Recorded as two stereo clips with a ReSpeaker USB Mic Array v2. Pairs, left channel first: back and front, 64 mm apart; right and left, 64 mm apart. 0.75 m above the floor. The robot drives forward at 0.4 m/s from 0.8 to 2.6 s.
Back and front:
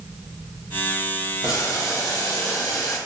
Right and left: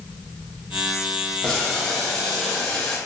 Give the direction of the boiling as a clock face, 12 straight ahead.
6 o'clock.